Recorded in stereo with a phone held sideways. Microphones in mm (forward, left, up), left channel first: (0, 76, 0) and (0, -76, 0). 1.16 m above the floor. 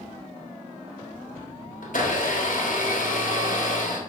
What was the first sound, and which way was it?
A blender, 70° left (ahead or behind).